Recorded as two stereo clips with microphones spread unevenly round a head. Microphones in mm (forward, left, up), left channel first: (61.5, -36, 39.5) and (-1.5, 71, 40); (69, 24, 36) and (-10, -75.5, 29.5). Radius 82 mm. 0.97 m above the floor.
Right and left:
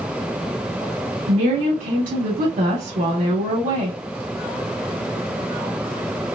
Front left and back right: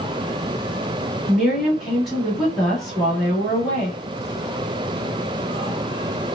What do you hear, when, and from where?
1.3 s a woman speaking: 140° left, 1.8 m